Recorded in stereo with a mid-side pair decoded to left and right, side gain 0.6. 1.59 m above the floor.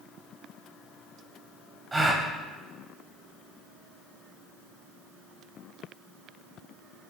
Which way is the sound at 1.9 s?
15° right.